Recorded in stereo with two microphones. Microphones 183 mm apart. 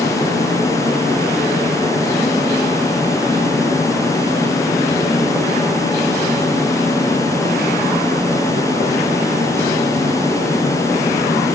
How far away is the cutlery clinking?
No cutlery clinking in this recording.